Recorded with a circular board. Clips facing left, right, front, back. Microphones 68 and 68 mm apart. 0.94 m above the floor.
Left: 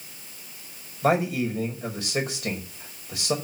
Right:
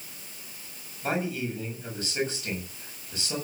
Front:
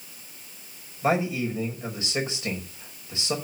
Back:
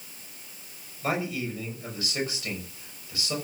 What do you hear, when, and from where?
1.0 s a man speaking: 65° left, 5.5 m